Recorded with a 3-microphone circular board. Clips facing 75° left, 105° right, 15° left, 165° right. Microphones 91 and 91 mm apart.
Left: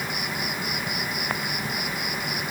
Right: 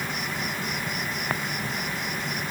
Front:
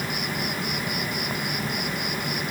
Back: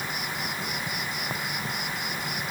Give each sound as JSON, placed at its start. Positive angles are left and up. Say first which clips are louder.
{"t": 0.0, "sound": "an insect", "louder": "even, front 3 dB", "azimuth_deg": -5}